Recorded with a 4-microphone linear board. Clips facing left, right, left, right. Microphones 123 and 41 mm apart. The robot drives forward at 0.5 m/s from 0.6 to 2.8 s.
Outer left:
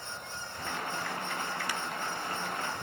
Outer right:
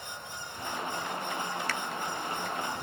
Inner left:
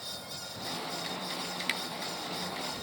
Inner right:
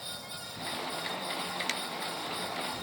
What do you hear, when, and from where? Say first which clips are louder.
1.7 s a finger snap: outer right 1 dB, inner left 4 dB; 15° left (ahead or behind)